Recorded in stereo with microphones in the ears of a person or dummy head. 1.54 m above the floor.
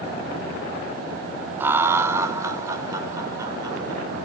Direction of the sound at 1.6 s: 15° right (ahead or behind).